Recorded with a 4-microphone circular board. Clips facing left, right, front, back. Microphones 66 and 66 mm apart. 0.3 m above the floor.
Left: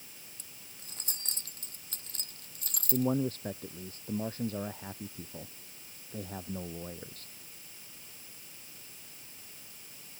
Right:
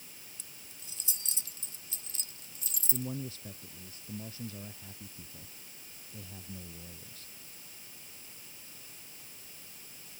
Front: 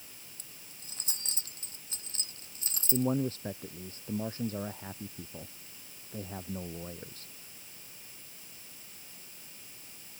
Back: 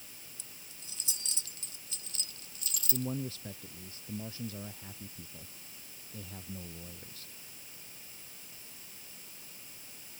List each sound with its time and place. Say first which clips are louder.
0.4 s keys jangling: even, even; 45° left; by 3.1 s 60° left
2.9 s a man speaking: left 10 dB, front 7 dB; 50° left